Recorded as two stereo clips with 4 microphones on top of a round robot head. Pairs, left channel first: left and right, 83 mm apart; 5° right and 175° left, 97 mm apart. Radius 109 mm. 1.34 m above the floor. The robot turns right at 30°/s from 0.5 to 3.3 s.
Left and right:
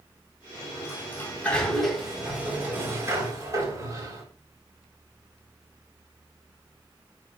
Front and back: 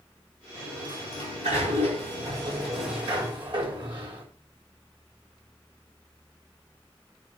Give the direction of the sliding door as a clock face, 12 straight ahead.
7 o'clock.